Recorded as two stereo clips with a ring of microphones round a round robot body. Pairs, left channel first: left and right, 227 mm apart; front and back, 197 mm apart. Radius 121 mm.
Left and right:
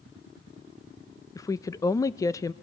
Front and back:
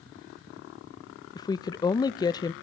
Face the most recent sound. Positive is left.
turn(degrees=35)